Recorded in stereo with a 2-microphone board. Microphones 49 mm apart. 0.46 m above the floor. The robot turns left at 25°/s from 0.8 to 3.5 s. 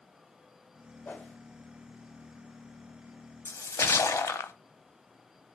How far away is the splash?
About 0.5 m.